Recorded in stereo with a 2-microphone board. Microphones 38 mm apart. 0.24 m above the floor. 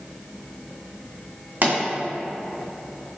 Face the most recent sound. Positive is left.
turn(degrees=-50)  # may be behind; listen again after turning